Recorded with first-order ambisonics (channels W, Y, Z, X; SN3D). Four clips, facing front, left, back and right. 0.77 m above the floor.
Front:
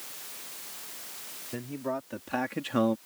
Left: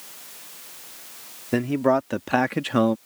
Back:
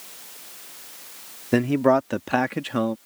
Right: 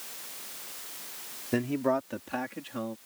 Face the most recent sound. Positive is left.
turn(degrees=85)